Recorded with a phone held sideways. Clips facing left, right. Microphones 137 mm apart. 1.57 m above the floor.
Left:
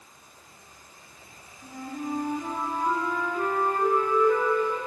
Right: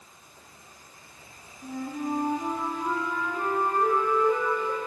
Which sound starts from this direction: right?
A flute, at 1.6 s.